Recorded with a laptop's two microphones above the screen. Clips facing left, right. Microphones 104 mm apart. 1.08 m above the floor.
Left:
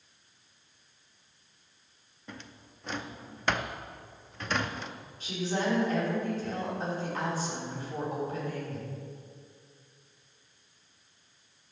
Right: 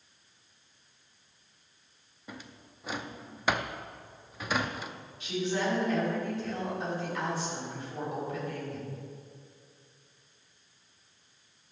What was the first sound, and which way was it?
A drawer, 10° right (ahead or behind).